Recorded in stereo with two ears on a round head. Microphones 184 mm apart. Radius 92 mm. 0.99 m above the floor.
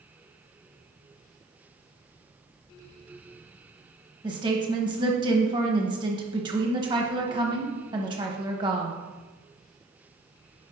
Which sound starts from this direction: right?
A woman speaking, at 4.2 s.